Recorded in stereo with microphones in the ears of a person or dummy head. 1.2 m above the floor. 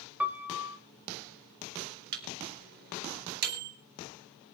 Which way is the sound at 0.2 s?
10° right (ahead or behind).